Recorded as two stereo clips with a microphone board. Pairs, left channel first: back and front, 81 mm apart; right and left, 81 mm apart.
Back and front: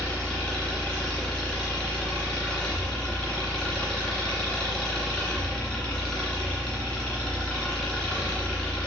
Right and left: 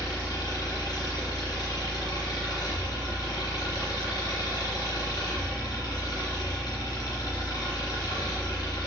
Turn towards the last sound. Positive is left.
turn(degrees=-110)